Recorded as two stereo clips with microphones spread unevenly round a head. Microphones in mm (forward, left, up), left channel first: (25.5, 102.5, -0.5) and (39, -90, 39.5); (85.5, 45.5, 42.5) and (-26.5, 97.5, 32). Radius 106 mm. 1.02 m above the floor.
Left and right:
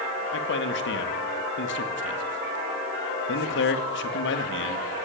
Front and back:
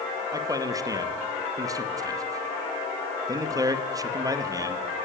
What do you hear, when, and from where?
0.3 s a man speaking: 95° left, 1.8 m